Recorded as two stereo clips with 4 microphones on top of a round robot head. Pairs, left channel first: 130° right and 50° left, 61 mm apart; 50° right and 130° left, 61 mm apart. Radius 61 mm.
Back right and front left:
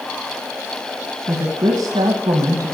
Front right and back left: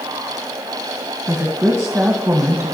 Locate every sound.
1.3 s a woman speaking: 50° left, 1.5 m